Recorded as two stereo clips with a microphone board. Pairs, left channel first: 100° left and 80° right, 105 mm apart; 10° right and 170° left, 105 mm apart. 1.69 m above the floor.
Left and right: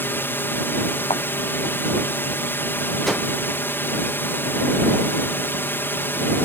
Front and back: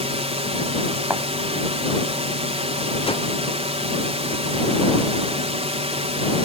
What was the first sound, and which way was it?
A drone, 170° left.